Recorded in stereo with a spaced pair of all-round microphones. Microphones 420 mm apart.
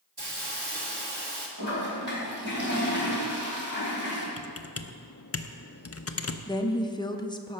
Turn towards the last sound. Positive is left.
turn(degrees=10)  # may be behind; listen again after turning